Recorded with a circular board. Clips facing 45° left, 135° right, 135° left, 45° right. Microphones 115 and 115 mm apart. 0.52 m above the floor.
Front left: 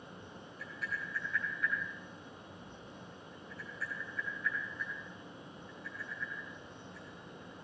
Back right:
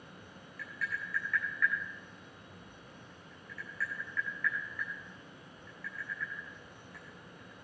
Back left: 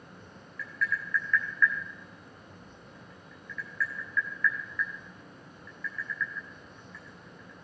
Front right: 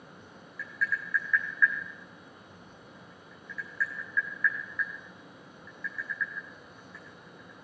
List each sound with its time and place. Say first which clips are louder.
0.6 s tapping: back right 2 dB, even; 130° right, 6.5 m